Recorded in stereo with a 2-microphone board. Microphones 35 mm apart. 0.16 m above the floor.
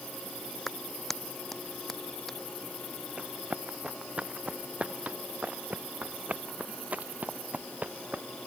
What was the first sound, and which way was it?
A clap, 5° left (ahead or behind).